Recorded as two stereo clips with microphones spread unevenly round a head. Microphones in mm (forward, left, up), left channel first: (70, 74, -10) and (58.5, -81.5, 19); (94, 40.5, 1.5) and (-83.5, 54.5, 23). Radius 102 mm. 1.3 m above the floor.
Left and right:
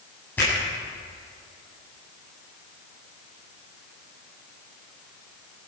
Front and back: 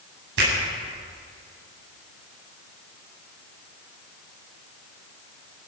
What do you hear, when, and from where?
0.4 s a finger snap: 170° left, 8.5 m